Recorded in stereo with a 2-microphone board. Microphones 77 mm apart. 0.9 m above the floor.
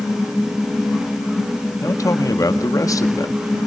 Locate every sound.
1.8 s a man speaking: 45° left (ahead or behind), 1.7 m